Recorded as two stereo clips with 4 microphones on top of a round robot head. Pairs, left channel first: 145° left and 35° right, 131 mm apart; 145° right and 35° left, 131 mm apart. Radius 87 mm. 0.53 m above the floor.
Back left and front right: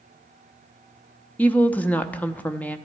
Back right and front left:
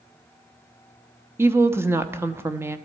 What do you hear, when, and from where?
1.4 s a woman speaking: 80° left, 0.9 m